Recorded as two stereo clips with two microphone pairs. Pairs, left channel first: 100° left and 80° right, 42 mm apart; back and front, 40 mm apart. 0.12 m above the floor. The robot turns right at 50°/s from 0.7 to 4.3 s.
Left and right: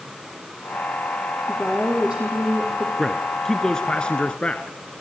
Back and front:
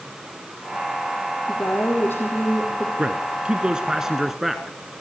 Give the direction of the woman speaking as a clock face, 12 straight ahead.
6 o'clock.